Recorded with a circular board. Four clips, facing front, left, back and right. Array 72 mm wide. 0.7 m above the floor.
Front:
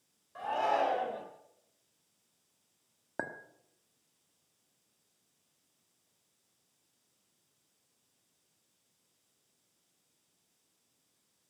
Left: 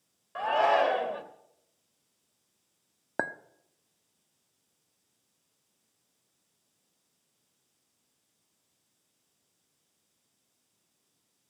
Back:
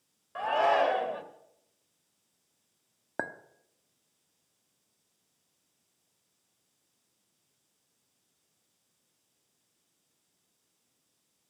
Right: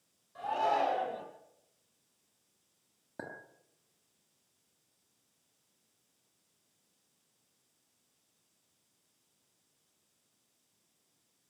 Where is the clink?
105° left, 1.0 m.